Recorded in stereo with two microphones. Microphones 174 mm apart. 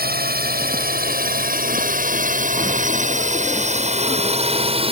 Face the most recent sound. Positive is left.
turn(degrees=-30)  # may be behind; listen again after turning